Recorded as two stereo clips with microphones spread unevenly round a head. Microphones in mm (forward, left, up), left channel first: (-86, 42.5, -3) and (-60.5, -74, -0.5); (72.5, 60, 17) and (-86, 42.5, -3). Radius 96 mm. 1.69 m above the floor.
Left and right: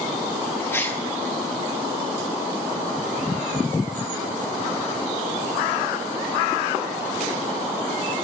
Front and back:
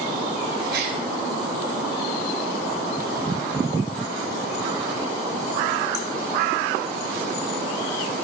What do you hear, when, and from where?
0.7 s a gasp: 170° left, 6.5 m